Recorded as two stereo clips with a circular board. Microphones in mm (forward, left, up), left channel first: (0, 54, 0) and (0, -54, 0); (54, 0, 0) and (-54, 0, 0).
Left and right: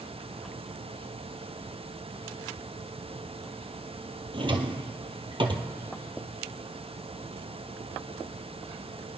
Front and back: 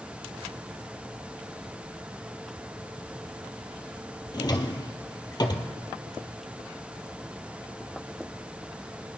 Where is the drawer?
50° right, 1.4 m.